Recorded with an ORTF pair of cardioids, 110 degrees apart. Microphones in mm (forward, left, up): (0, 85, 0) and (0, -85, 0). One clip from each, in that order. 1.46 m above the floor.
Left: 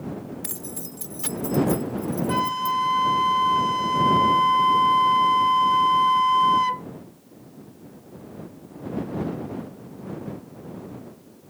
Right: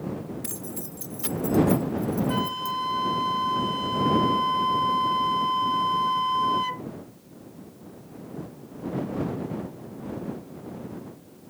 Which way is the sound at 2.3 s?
30° left.